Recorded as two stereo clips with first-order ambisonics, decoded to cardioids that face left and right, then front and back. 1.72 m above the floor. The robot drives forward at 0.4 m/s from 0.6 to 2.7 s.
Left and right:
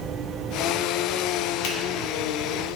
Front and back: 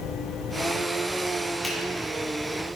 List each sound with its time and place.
1.6 s a finger snap: 80° left, 3 m